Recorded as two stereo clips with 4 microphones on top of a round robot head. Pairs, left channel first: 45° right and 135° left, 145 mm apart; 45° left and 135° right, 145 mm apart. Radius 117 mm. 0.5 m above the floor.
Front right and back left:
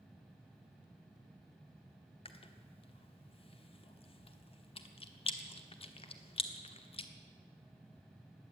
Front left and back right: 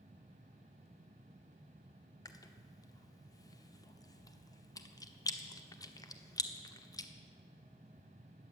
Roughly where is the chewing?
Ahead.